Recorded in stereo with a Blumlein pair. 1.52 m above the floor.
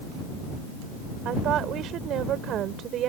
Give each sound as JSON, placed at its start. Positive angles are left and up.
{"t": 1.2, "sound": "a woman speaking", "azimuth_deg": -30}